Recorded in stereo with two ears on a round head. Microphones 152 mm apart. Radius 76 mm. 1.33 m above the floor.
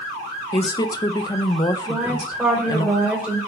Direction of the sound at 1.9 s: 5° right (ahead or behind).